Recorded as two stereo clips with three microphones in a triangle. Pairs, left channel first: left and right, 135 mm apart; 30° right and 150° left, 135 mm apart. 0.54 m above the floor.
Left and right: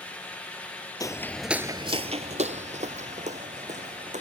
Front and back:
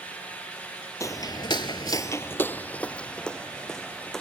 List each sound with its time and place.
1.0 s footsteps: 30° left; by 4.2 s 115° right